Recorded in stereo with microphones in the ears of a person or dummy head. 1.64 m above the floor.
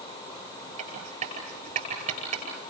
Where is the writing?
35° right (ahead or behind), 9.5 m.